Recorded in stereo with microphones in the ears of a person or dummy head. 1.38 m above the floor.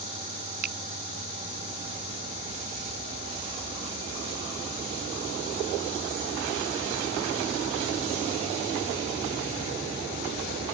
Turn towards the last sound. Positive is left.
turn(degrees=-50)  # may be behind; listen again after turning